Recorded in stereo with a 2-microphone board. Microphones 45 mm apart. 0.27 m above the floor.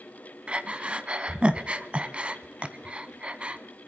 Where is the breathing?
25° right (ahead or behind), 0.8 m.